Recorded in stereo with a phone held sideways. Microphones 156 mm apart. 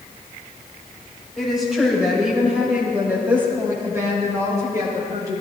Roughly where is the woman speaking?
Centre.